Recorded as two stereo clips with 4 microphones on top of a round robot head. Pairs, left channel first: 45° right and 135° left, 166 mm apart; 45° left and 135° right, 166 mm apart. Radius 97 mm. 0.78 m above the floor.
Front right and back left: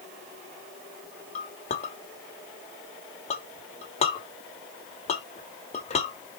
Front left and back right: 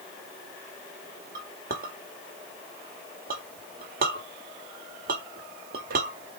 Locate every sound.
1.4 s a clink: 95° right, 1.5 m